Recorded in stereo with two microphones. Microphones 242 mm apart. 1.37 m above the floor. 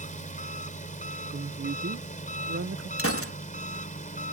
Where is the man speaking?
55° right (ahead or behind).